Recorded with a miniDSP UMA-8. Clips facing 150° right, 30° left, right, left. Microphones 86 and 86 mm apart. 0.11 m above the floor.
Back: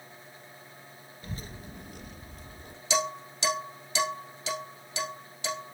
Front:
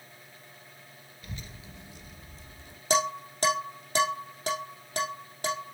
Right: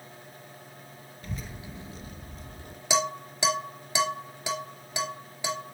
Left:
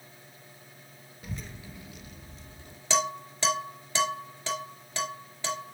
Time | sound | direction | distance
1.2 | a child speaking | 165° left | 0.9 m
2.9 | dishes clattering | 10° right | 2.5 m